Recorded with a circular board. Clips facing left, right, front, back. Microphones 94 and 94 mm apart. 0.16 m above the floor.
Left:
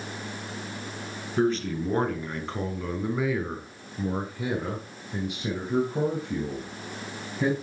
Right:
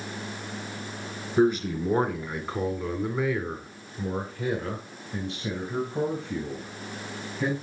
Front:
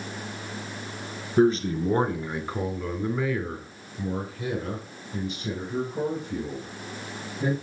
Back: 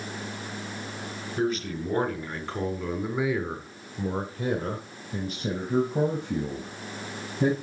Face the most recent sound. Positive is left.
turn(degrees=160)